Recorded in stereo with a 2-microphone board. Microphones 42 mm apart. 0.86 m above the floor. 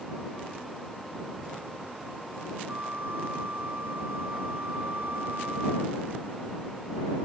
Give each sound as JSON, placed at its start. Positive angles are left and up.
{"t": 2.7, "sound": "a flute", "side_deg": -50}